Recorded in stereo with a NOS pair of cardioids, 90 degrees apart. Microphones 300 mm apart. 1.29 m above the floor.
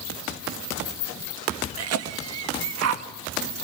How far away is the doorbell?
No doorbell in this recording.